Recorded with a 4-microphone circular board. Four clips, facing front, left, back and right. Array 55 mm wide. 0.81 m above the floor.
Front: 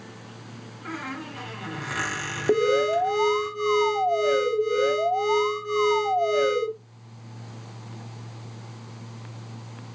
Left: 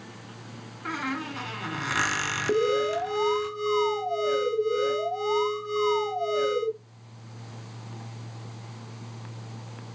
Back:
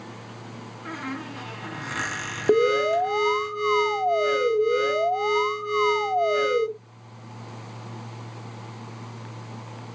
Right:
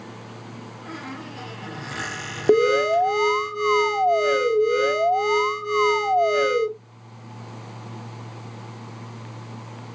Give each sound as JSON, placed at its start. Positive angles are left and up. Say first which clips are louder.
{"t": 0.8, "sound": "a squeak", "louder": "left 6 dB, even", "azimuth_deg": 90, "distance_m": 1.6}
{"t": 2.5, "sound": "an alarm", "louder": "right 8 dB, back 1 dB", "azimuth_deg": -110, "distance_m": 1.0}